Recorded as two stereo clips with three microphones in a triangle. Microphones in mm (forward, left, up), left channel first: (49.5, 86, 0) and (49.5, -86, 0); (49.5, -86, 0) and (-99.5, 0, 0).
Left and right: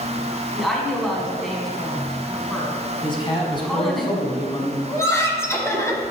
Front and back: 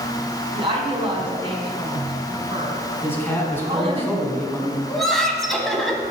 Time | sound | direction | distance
0.5 | a woman speaking | straight behind | 1.6 m
3.0 | a man speaking | 40° left | 1.8 m
4.9 | laughter | 55° left | 1.2 m